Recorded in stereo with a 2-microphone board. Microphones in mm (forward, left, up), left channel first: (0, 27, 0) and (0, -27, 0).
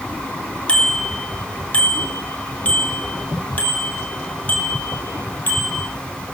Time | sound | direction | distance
0.7 | a bicycle bell | 20° left (ahead or behind) | 3.5 m